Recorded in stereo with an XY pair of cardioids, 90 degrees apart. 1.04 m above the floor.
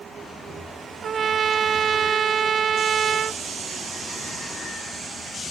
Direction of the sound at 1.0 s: 50° right.